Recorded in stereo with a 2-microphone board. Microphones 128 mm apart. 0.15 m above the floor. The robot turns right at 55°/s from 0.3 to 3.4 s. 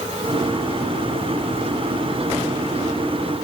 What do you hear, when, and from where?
Only background noise.